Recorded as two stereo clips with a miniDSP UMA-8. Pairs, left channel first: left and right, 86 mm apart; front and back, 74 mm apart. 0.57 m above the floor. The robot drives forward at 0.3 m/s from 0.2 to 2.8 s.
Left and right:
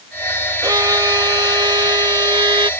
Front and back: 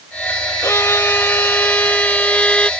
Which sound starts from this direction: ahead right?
A violin, at 0.6 s.